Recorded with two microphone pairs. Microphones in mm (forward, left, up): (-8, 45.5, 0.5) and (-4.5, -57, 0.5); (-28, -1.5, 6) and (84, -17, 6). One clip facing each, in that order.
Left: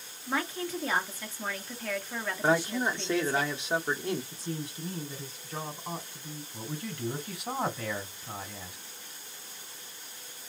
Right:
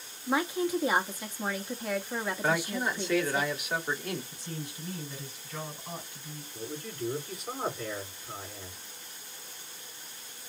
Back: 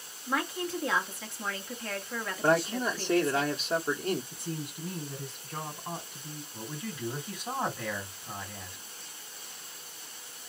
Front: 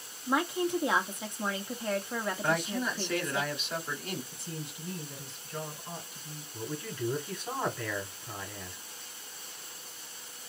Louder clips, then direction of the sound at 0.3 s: Right 4 dB, front 3 dB; 40° right.